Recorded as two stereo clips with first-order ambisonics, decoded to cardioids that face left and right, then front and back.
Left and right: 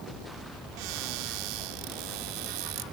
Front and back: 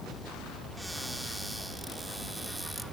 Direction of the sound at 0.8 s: 95° right.